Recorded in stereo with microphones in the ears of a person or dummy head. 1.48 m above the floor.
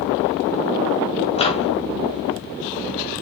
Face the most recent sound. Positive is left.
turn(degrees=30)  # may be behind; listen again after turning